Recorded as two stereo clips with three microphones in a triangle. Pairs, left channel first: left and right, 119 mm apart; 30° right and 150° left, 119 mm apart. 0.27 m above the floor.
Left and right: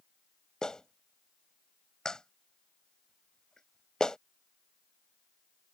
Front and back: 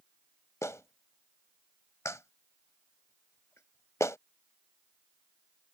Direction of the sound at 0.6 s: 10° left.